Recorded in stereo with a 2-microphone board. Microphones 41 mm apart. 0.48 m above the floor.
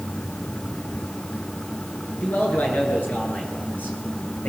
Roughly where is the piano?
No piano in this recording.